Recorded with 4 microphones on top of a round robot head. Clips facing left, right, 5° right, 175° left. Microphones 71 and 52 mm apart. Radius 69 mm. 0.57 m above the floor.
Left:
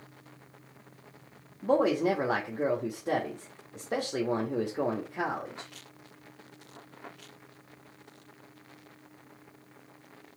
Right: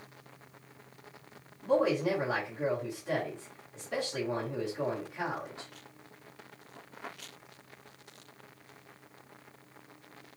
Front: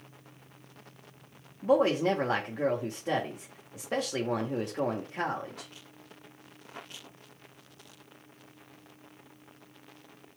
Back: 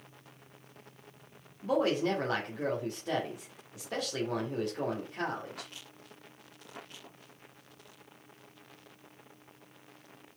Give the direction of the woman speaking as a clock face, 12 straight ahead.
10 o'clock.